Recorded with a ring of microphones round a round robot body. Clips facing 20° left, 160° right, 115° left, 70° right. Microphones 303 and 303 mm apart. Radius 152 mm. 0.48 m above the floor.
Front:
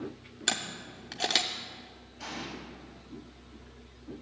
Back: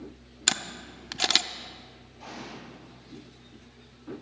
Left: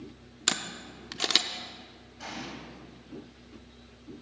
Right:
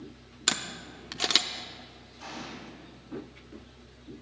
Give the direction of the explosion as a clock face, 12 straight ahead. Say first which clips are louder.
Front 1 dB, left 1 dB; 10 o'clock.